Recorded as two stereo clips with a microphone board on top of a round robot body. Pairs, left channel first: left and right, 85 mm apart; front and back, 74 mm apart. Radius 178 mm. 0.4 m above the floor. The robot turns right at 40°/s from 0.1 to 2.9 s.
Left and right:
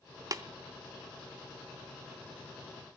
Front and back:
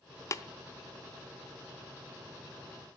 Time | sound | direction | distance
0.3 | tapping | 45° right | 1.0 m